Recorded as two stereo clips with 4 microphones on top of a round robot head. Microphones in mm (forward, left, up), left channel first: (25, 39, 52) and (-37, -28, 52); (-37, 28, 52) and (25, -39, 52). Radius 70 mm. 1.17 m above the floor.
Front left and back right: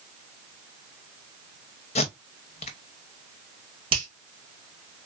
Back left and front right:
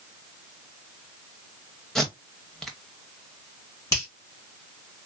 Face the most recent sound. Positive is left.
turn(degrees=-170)